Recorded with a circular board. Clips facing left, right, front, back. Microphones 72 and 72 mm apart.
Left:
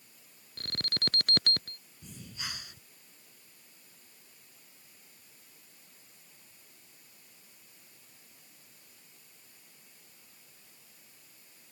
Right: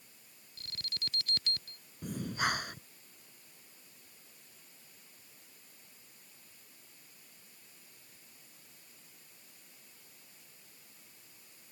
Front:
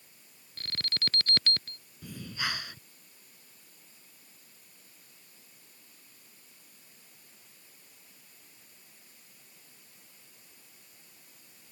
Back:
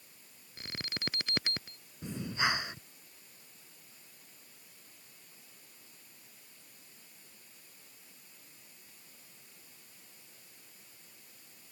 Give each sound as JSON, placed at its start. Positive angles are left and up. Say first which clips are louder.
{"t": 0.6, "sound": "an alarm", "louder": "left 7 dB, front 4 dB", "azimuth_deg": 105}
{"t": 2.0, "sound": "breathing", "louder": "right 11 dB, back 4 dB", "azimuth_deg": -115}